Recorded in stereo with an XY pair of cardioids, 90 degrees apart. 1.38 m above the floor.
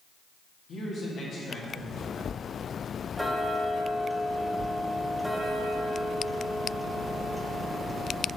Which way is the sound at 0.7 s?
60° left.